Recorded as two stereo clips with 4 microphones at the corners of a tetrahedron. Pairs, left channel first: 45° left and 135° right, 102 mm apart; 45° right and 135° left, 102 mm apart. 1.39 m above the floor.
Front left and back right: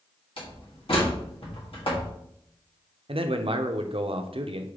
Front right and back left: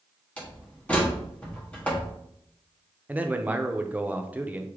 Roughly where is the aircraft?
I don't hear an aircraft.